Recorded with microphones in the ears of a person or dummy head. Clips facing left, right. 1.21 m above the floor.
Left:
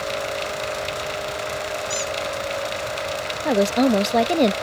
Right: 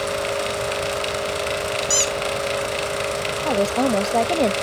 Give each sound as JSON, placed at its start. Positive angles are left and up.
{"t": 1.9, "sound": "a squeak", "side_deg": -80}
{"t": 3.5, "sound": "a woman speaking", "side_deg": 20}